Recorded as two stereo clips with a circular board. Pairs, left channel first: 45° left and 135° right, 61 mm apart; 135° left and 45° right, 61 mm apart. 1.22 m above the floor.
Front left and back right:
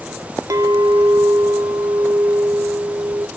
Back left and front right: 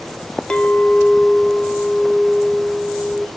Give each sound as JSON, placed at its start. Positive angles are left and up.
{"t": 0.5, "sound": "a clink", "azimuth_deg": -145, "distance_m": 0.9}